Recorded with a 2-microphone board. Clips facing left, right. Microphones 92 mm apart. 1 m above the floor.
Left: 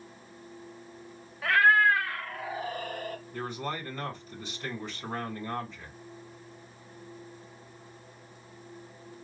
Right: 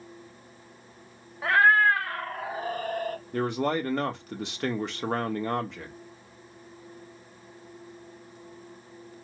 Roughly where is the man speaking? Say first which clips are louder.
Right 10 dB; right.